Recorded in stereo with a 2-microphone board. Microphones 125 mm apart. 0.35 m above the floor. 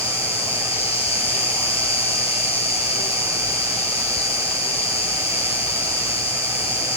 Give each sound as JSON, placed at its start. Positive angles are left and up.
{"t": 0.0, "sound": "an insect", "side_deg": 55, "distance_m": 1.5}